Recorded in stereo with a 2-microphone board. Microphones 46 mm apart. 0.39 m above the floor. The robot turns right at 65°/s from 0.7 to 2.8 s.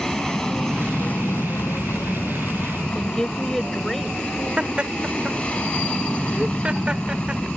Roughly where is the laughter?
Right.